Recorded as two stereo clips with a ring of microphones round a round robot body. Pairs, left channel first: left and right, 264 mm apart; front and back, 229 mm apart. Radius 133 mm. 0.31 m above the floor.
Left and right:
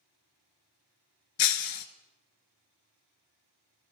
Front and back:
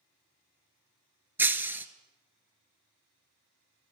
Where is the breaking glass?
100° left, 0.6 m.